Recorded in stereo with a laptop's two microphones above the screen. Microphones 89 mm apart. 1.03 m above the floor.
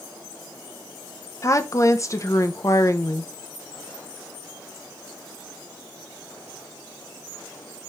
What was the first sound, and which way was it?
A woman speaking, 35° left (ahead or behind).